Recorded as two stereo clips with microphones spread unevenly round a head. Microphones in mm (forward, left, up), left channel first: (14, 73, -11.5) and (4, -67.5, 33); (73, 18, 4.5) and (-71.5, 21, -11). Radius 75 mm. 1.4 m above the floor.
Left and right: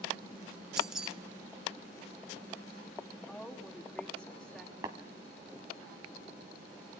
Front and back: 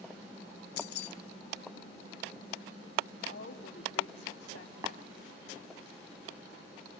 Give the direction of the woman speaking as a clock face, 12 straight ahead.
12 o'clock.